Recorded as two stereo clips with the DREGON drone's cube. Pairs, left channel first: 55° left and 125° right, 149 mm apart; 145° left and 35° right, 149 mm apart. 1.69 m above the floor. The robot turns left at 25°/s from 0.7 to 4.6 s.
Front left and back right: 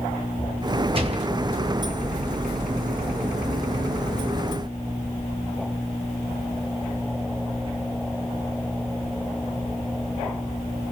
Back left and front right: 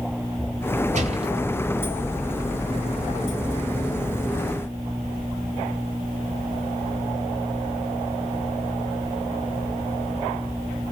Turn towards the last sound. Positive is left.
turn(degrees=-165)